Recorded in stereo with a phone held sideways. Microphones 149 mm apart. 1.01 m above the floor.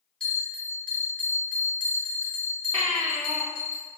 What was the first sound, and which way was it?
A bell, 5° left (ahead or behind).